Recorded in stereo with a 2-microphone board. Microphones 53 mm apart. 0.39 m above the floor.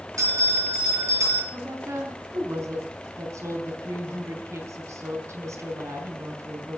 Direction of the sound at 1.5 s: 70° right (ahead or behind).